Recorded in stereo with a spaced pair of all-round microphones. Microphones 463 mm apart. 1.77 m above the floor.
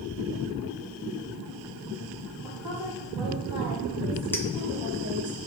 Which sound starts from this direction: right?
A woman speaking, at 2.4 s.